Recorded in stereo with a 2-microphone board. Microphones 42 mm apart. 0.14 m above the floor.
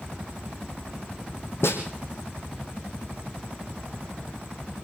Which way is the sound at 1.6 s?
75° left (ahead or behind).